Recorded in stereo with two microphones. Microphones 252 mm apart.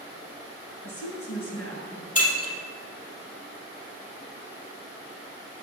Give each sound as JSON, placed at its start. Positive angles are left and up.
{"t": 0.8, "sound": "a woman speaking", "side_deg": 60, "distance_m": 2.0}
{"t": 2.1, "sound": "breaking glass", "side_deg": 65, "distance_m": 2.5}